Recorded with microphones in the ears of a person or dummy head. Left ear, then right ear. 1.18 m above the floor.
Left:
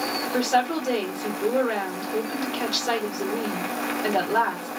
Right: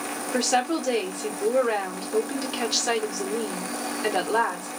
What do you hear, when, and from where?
0.3 s a woman speaking: 70° right (ahead or behind), 1.2 m